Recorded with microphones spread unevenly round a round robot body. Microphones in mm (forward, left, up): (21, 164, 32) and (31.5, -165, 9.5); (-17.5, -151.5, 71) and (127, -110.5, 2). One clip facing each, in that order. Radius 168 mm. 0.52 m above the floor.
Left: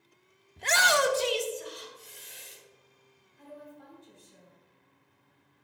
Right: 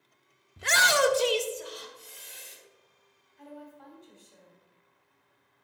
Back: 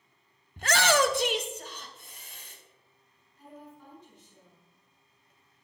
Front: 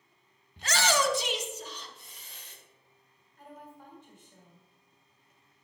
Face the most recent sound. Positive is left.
turn(degrees=30)